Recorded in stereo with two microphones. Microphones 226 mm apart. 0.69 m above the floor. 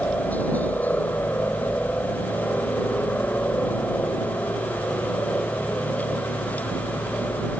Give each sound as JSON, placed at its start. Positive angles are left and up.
{"t": 0.0, "sound": "a helicopter", "side_deg": 10}